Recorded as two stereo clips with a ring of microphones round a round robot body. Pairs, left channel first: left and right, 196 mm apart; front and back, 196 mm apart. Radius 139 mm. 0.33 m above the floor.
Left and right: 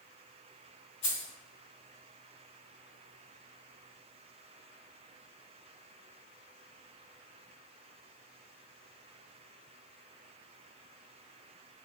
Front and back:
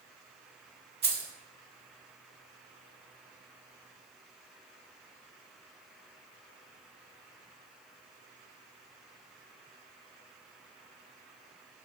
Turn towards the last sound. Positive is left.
turn(degrees=140)